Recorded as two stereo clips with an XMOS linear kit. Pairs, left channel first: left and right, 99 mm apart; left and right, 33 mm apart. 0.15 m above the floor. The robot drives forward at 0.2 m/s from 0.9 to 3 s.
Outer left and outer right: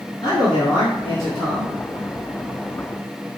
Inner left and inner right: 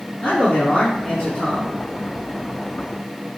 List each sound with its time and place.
0.2 s a man speaking: 55° left (ahead or behind), 1.9 m